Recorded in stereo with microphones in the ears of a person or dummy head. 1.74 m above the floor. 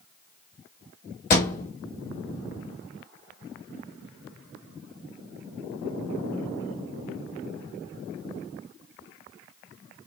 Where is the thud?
30° left (ahead or behind), 1.5 m.